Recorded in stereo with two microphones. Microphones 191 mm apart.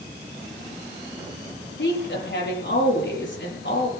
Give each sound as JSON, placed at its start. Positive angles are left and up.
{"t": 1.8, "sound": "a woman speaking", "side_deg": 75, "distance_m": 7.0}